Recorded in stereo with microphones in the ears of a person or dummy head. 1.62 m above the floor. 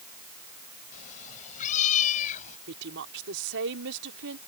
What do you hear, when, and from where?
0.9 s a cat meowing: 45° left (ahead or behind)
2.7 s a woman speaking: 65° right (ahead or behind)